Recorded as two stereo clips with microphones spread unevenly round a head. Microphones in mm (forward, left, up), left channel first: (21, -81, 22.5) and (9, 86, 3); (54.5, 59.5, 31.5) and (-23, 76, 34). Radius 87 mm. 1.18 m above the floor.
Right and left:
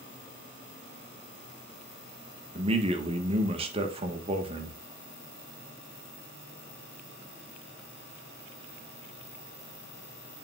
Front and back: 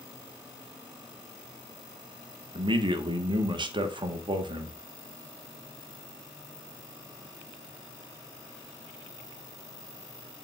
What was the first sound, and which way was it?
A man speaking, 150° left.